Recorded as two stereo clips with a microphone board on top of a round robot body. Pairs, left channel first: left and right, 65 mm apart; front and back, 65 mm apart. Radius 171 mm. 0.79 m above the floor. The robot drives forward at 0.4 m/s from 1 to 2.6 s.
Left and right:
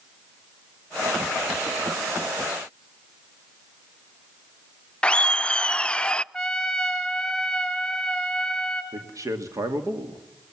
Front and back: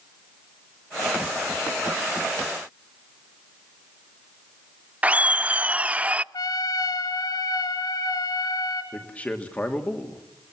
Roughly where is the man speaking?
Ahead right.